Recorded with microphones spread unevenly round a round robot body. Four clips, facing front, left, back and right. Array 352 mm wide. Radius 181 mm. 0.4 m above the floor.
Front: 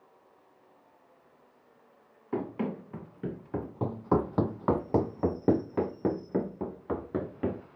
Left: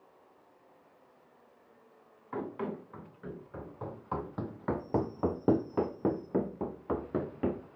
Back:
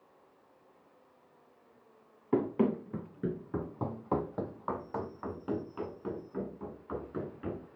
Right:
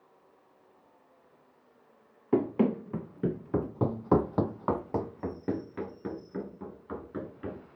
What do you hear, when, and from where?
2.3 s running footsteps: 110° right, 2 m; by 7.6 s 45° left, 3.5 m